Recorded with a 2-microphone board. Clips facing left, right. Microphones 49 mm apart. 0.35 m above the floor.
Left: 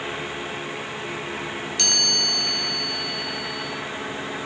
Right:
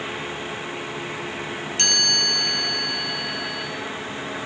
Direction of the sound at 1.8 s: 40° right (ahead or behind).